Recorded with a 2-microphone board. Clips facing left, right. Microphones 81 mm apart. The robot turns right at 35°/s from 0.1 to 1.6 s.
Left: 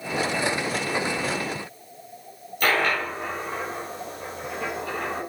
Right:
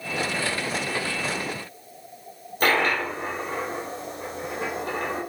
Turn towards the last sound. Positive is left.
turn(degrees=-35)  # may be behind; listen again after turning